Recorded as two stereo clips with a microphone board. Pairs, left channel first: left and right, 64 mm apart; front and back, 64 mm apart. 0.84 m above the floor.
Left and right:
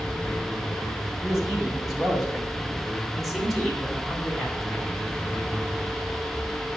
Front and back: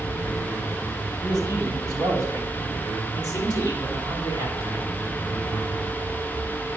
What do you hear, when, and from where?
1.2 s a man speaking: 175° right, 6.5 m; by 4.9 s 170° left, 9.5 m